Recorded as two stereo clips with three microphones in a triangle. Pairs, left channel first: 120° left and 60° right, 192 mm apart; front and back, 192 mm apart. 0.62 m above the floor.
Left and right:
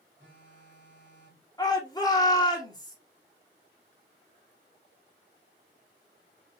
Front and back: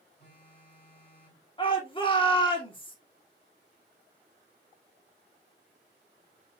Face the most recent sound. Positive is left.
turn(degrees=60)